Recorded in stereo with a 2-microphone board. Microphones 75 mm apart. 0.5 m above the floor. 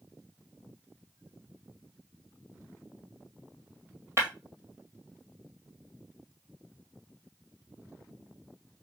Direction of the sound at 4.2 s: 40° right (ahead or behind).